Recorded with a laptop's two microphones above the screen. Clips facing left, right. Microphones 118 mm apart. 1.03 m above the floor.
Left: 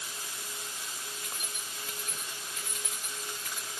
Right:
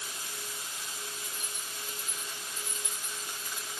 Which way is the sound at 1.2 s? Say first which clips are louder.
Even; 70° left (ahead or behind).